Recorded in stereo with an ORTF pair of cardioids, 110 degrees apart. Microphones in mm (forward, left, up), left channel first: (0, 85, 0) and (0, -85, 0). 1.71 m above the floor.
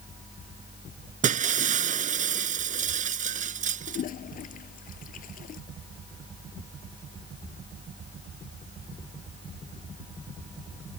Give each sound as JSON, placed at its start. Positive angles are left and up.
{"t": 1.2, "sound": "breaking glass", "azimuth_deg": -50}
{"t": 3.9, "sound": "a toilet flushing", "azimuth_deg": 55}